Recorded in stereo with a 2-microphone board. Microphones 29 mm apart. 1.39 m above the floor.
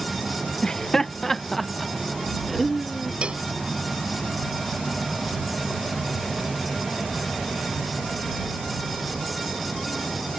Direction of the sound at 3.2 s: 35° right (ahead or behind).